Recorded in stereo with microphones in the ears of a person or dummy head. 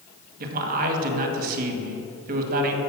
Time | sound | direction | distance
0.4 | a man speaking | 40° right (ahead or behind) | 1.9 m